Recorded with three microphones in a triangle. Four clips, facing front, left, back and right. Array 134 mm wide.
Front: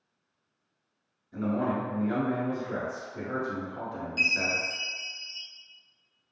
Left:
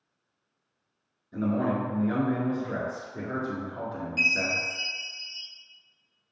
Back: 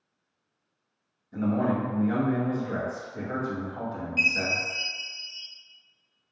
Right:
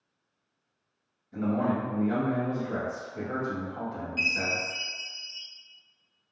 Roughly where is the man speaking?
Left.